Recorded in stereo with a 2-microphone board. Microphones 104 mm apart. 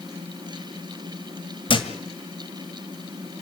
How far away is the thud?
About 1.8 m.